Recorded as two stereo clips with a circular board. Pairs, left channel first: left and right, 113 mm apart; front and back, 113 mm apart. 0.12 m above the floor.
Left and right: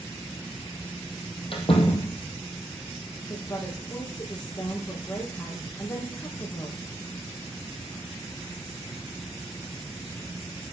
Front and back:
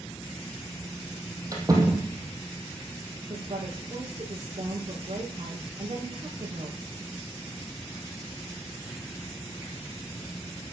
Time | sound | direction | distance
1.5 | a door slam | 120° left | 3.5 m
3.3 | a woman speaking | 145° left | 4 m